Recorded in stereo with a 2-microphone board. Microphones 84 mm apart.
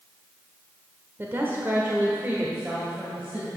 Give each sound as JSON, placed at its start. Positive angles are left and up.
{"t": 1.2, "sound": "a woman speaking", "side_deg": -30, "distance_m": 0.8}